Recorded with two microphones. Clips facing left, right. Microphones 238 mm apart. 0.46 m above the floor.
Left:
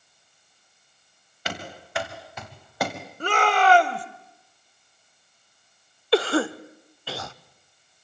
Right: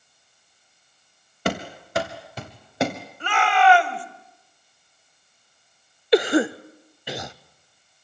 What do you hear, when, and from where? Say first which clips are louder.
1.4 s running footsteps: right 9 dB; 55° right (ahead or behind), 3 m; by 3.0 s 20° right (ahead or behind), 3 m
3.2 s a shout: right 1 dB; 45° left (ahead or behind), 1.9 m
6.1 s a cough: right 3 dB; 20° right (ahead or behind), 0.8 m